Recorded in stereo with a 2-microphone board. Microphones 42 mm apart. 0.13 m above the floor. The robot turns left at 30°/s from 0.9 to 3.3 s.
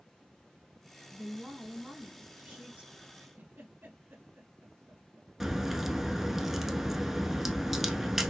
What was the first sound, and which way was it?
A woman speaking, 10° right (ahead or behind).